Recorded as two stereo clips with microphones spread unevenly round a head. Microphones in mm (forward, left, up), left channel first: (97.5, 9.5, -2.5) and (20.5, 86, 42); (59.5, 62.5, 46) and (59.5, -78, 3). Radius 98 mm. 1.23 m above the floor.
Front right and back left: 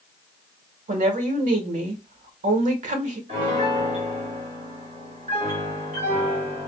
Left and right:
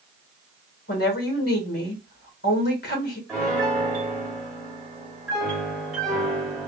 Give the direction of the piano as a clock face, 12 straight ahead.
6 o'clock.